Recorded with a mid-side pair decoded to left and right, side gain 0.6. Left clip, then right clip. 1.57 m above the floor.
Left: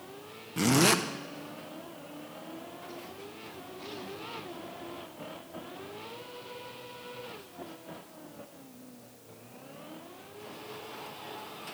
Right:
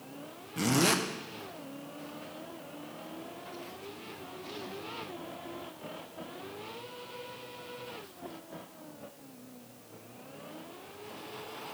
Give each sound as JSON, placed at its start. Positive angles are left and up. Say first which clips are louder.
{"t": 0.6, "sound": "a zipper", "louder": "left 3 dB", "azimuth_deg": 20, "distance_m": 0.8}